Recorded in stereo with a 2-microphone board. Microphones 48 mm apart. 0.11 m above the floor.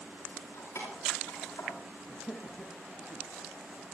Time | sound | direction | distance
0.3 | keys jangling | 75° left (ahead or behind) | 7.5 m
2.0 | laughter | 45° left (ahead or behind) | 2.5 m